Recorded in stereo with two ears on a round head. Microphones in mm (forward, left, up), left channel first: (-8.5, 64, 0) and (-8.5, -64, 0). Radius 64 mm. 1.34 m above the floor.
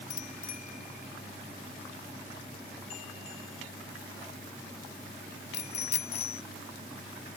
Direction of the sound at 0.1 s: 55° left (ahead or behind).